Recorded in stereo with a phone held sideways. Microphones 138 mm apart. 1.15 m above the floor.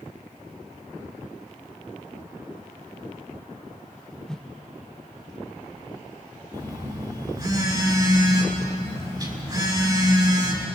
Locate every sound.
4.3 s a whoosh: 5° left (ahead or behind), 0.8 m
6.5 s a phone buzzing: 30° right (ahead or behind), 4 m